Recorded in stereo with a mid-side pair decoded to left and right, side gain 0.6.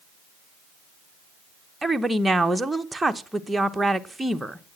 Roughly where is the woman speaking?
Ahead.